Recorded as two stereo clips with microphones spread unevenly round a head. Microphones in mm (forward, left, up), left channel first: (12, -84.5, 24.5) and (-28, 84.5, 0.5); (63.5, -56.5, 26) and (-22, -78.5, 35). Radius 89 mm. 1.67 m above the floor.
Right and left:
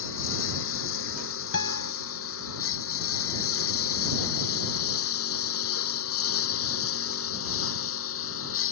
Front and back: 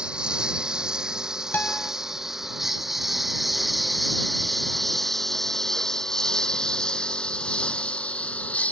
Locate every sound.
0.0 s a lawn mower: 85° right; by 8.7 s 60° right
1.5 s a guitar: 55° right